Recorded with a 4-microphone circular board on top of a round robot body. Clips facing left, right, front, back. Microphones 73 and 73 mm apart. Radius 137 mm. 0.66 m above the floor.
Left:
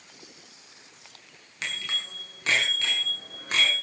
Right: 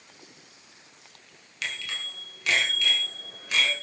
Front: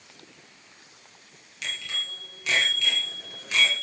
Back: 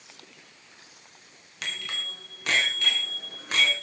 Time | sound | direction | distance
1.6 | a bicycle bell | 150° left | 6 m